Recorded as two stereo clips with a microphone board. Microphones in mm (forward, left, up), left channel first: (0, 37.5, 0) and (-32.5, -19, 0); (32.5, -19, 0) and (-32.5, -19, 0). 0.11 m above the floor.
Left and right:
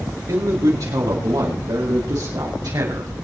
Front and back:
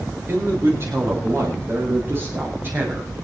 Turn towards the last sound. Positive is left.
turn(degrees=-120)